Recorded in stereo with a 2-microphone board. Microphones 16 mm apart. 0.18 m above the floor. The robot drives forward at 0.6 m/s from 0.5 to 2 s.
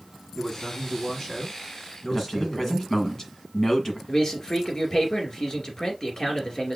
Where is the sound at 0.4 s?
30° left (ahead or behind), 1.7 m; by 3.1 s 25° left (ahead or behind), 2 m.